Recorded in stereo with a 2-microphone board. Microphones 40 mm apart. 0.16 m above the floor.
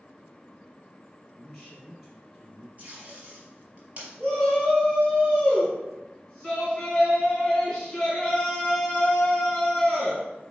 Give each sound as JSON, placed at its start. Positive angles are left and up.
{"t": 1.3, "sound": "a man speaking", "side_deg": -10, "distance_m": 2.5}
{"t": 2.8, "sound": "tape being pulled", "side_deg": -35, "distance_m": 3.5}
{"t": 4.2, "sound": "a shout", "side_deg": 5, "distance_m": 2.0}